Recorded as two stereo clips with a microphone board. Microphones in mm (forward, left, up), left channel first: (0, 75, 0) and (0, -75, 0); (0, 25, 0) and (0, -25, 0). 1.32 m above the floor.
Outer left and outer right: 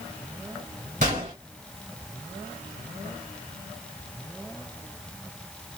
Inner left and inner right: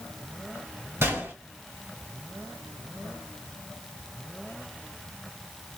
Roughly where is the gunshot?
Right.